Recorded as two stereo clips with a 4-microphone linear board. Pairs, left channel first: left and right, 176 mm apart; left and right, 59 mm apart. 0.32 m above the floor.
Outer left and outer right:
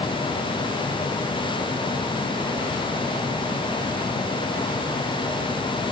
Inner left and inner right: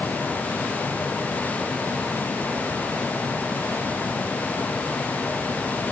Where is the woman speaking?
I don't hear a woman speaking.